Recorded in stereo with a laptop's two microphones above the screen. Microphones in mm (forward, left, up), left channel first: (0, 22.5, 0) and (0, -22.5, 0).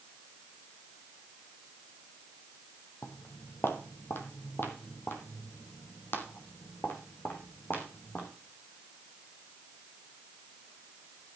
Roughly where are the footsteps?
Left.